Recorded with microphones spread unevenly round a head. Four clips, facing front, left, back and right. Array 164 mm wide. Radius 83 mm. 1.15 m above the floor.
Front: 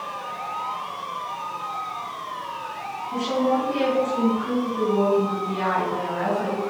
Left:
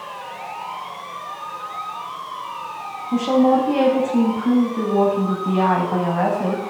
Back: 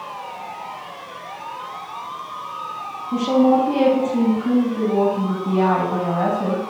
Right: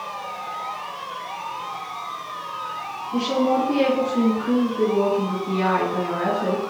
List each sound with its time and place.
3.1 s a woman speaking: 130° left, 7 m